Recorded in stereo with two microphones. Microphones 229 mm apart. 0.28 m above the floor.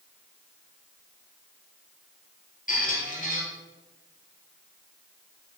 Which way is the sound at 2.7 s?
35° left (ahead or behind).